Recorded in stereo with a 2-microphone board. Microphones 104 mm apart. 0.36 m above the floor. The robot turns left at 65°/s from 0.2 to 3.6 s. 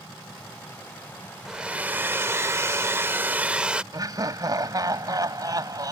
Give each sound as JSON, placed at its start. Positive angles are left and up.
{"t": 1.4, "sound": "a hair dryer", "side_deg": -5}
{"t": 3.9, "sound": "laughter", "side_deg": -40}